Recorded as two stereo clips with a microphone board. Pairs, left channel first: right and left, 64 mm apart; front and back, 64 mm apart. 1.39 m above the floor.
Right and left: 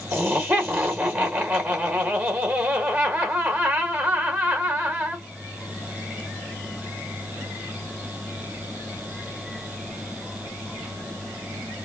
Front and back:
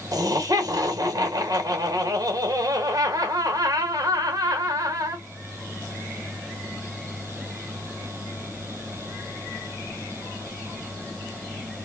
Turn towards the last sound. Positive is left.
turn(degrees=150)